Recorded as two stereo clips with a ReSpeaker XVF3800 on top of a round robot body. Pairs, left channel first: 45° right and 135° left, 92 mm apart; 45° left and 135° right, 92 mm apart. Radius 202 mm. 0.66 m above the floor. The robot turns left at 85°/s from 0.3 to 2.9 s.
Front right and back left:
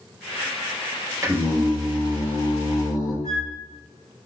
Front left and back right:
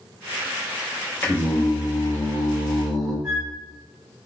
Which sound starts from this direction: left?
Singing, at 1.2 s.